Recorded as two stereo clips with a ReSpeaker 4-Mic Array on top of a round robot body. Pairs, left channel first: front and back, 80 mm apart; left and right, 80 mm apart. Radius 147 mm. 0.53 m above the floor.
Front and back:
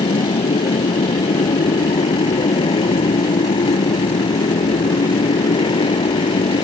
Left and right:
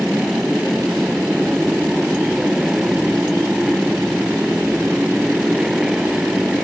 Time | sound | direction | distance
0.0 | a motorcycle | 5° right | ?